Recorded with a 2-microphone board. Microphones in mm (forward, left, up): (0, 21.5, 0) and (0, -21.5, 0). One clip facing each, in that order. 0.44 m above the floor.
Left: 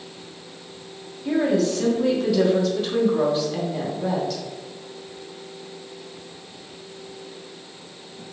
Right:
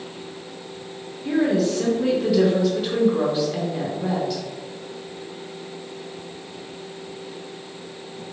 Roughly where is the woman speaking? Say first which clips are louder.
Even; centre.